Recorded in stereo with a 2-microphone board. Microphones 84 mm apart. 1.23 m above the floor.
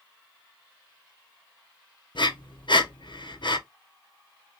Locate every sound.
2.1 s breathing: 70° left (ahead or behind), 0.7 m